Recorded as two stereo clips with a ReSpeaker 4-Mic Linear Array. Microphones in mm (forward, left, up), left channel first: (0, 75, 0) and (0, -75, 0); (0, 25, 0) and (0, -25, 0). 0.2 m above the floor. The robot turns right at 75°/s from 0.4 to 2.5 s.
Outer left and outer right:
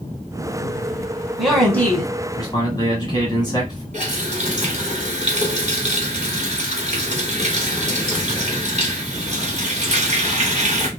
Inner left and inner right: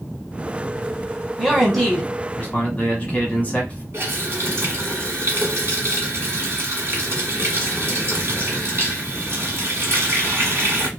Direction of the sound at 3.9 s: 50° right (ahead or behind).